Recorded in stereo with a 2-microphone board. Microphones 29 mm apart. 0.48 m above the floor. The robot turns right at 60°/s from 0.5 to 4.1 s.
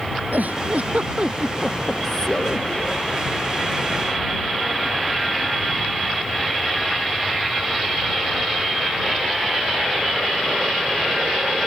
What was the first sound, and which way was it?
A giggle, 80° right.